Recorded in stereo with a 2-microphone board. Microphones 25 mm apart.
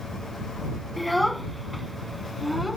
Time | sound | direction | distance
1.0 | a child speaking | 5° left (ahead or behind) | ?